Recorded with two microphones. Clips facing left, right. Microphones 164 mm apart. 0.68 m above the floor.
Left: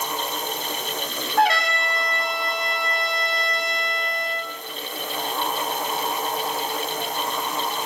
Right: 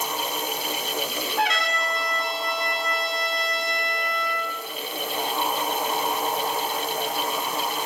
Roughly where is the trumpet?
Left.